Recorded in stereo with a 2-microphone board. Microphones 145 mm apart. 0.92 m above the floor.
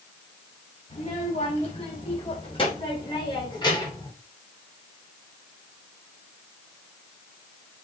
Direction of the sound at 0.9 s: 45° left (ahead or behind).